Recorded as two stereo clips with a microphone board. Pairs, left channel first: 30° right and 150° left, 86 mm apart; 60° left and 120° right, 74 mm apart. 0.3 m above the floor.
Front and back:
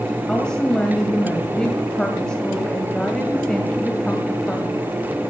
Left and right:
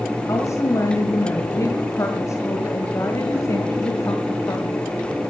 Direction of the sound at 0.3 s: 50° left.